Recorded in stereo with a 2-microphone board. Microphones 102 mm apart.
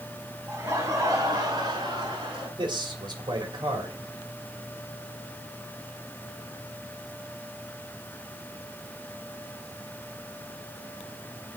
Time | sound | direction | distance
0.5 | laughter | 20° right (ahead or behind) | 4 m
2.6 | a man speaking | 50° right (ahead or behind) | 2.5 m